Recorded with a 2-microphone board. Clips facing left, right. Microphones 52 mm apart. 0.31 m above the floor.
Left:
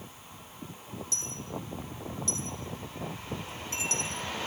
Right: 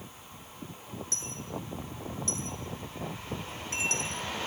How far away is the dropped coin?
About 1.9 m.